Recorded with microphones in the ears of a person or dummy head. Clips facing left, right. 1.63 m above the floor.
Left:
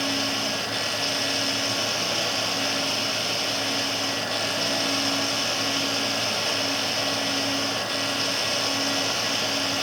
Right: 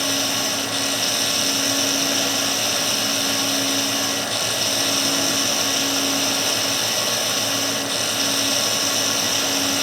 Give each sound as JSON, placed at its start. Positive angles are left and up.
{"t": 0.0, "sound": "running water", "side_deg": -20}